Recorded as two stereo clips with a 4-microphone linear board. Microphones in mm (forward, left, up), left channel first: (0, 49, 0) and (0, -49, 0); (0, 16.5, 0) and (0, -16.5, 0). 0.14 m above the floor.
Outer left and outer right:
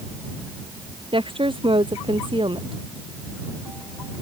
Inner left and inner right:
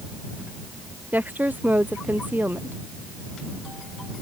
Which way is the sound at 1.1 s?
60° right (ahead or behind).